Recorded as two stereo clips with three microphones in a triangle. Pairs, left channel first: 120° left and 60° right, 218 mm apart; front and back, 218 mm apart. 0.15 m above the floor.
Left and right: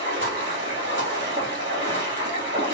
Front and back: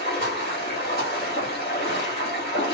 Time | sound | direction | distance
0.0 | running water | 40° right | 2.5 m